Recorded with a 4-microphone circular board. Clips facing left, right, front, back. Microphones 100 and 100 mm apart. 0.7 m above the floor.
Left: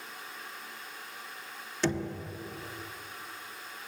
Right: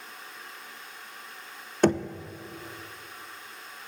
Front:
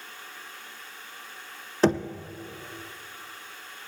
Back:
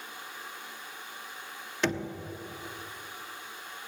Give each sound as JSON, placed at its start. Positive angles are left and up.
{"t": 1.8, "sound": "knocking", "azimuth_deg": -55, "distance_m": 0.6}